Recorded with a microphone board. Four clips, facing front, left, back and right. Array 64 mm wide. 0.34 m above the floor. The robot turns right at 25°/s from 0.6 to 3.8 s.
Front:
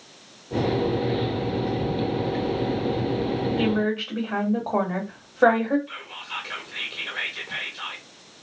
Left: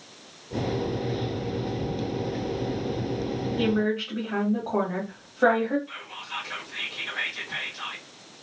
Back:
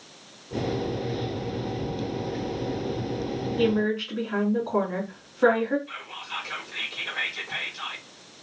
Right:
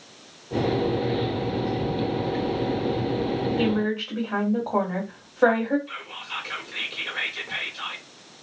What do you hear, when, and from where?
3.6 s a woman speaking: 15° right, 1.6 m; by 5.8 s 10° right, 1.6 m
5.9 s whispering: 50° right, 1.2 m